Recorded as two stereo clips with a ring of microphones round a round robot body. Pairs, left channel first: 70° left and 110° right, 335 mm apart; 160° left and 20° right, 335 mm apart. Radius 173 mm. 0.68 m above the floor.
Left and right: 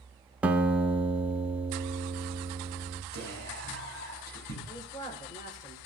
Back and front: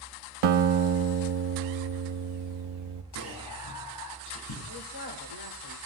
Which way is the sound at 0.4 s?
25° right.